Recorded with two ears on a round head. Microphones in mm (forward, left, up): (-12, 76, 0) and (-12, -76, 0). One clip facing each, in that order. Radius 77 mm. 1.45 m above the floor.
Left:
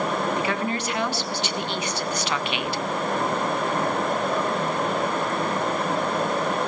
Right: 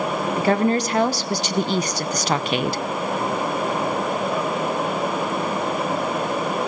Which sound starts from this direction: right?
A woman speaking, at 0.4 s.